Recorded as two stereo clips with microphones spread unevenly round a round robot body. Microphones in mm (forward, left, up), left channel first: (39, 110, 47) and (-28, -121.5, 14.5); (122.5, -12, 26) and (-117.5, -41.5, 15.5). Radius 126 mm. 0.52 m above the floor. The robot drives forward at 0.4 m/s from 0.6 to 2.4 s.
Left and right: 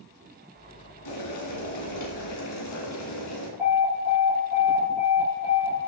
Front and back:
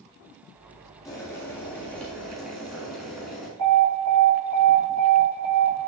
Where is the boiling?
85° left, 2.5 m; by 3.5 s 95° left, 2.5 m.